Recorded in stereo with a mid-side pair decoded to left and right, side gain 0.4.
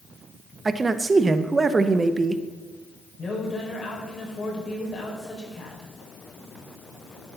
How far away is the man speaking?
About 0.8 m.